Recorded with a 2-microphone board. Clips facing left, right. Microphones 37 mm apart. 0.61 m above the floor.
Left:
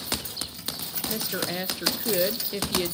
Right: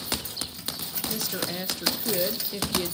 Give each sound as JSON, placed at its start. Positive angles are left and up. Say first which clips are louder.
{"t": 1.1, "sound": "a woman speaking", "louder": "left 2 dB", "side_deg": 20, "distance_m": 0.6}